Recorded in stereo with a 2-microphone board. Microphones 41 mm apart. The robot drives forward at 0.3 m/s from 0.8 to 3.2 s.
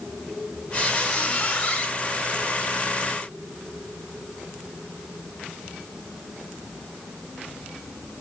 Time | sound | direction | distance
0.7 | a squeak | 20° left (ahead or behind) | 1.4 m